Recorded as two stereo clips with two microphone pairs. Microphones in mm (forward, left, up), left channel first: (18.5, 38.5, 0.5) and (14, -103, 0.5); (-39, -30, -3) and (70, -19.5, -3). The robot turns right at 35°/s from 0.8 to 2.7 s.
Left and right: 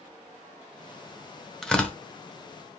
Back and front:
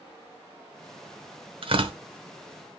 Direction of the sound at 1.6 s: Straight ahead.